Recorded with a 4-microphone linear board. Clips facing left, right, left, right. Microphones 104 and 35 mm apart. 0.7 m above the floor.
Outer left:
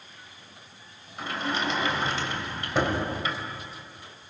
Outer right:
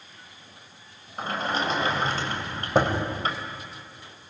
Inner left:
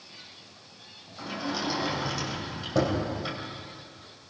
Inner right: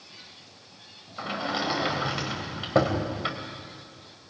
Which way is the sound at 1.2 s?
45° right (ahead or behind).